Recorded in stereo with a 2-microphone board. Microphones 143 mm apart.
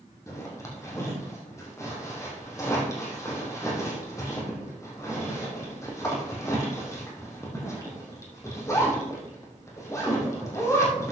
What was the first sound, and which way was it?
A zipper, 20° left (ahead or behind).